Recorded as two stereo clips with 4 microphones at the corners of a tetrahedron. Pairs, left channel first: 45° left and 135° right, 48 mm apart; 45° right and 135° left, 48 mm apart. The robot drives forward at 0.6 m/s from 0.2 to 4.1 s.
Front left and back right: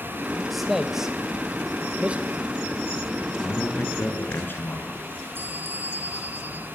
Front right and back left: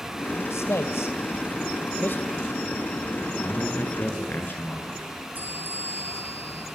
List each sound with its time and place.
0.5 s a man speaking: 50° right, 2 m; by 2.2 s 80° right, 1.7 m
3.4 s a man speaking: straight ahead, 8.5 m
5.3 s a bell: 175° right, 6 m